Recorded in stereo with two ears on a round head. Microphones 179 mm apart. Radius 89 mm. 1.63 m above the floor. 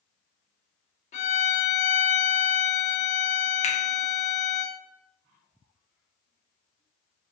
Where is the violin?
35° left (ahead or behind), 0.7 m.